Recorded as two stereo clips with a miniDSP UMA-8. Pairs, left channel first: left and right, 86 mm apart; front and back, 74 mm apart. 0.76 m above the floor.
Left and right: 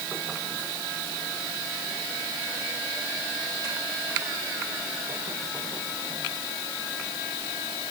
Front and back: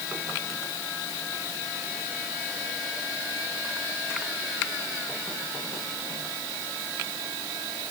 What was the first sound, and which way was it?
Only background noise.